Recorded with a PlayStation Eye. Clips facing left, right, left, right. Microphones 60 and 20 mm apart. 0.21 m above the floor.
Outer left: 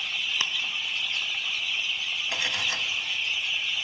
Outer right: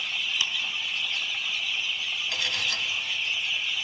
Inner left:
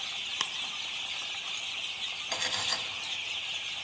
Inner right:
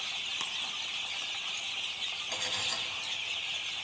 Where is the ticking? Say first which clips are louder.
Even, inner left 3 dB; 40° left (ahead or behind), 0.5 m.